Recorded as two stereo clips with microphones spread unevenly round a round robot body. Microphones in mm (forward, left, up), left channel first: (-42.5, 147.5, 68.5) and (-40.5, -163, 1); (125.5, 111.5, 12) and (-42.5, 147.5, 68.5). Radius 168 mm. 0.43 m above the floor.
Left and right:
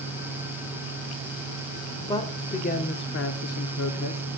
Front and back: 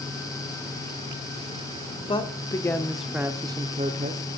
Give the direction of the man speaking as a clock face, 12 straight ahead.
12 o'clock.